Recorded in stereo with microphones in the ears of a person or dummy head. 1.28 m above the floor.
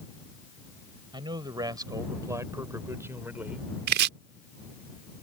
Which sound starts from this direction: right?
Chopping, at 3.9 s.